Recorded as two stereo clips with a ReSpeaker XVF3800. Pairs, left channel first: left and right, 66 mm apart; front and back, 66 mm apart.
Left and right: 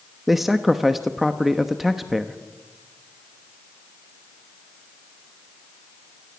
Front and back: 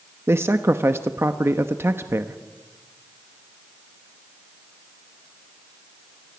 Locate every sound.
0.3 s a man speaking: 175° right, 1.0 m